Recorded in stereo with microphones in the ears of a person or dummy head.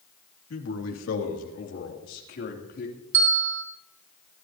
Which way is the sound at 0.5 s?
85° left.